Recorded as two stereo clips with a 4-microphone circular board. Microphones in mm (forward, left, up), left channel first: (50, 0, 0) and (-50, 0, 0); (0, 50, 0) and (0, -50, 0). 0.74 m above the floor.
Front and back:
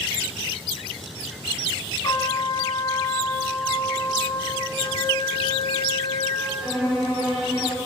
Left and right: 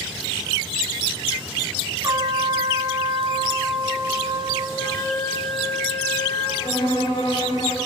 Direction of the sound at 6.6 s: 100° left.